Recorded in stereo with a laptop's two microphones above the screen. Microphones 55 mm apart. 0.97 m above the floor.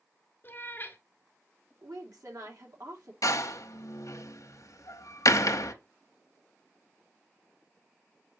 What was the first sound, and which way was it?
A cat meowing, 40° left (ahead or behind).